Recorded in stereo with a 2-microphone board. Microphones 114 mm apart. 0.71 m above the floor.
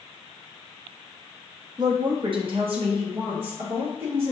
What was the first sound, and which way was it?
A woman speaking, 35° right (ahead or behind).